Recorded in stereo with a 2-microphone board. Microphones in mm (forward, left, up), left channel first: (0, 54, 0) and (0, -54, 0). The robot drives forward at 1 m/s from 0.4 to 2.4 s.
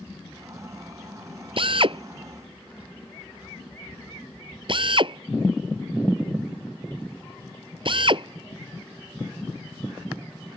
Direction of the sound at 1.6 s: 55° right (ahead or behind).